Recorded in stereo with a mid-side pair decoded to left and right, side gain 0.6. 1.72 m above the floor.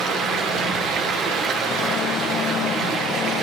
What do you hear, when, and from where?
0.0 s running water: 50° right, 1.7 m